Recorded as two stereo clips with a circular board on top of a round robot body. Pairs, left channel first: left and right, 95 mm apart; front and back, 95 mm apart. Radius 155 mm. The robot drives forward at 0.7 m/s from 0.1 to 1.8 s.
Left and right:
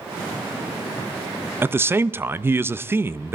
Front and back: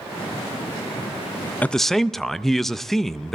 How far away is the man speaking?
About 0.6 m.